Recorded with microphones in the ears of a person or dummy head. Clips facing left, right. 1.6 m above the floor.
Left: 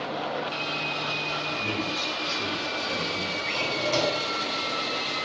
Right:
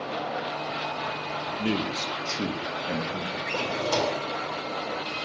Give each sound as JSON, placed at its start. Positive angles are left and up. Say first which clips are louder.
{"t": 1.6, "sound": "a man speaking", "louder": "right 6 dB", "side_deg": -65, "distance_m": 2.0}
{"t": 3.5, "sound": "a drawer", "louder": "right 1 dB", "side_deg": -55, "distance_m": 2.0}